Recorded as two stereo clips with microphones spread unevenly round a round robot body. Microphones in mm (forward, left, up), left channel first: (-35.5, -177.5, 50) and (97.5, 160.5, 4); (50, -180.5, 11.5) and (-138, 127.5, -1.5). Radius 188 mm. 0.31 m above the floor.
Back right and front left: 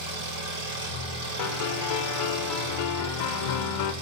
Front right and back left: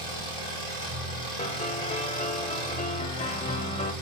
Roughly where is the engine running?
Ahead.